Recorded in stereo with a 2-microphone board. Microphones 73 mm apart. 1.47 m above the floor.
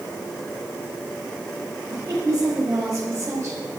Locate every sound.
1.9 s a woman speaking: 55° right (ahead or behind), 6 m; by 3.6 s 45° right (ahead or behind), 5 m